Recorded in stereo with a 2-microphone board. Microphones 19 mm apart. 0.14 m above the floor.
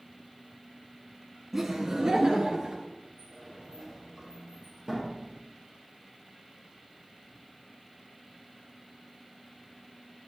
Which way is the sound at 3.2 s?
30° right (ahead or behind).